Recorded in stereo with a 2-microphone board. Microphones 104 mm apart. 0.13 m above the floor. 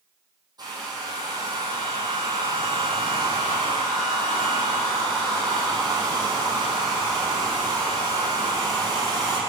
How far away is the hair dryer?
About 4.5 m.